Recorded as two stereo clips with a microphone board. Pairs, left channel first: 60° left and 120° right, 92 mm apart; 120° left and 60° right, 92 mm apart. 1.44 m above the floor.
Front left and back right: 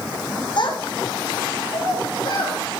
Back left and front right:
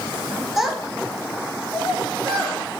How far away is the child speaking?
About 1.4 m.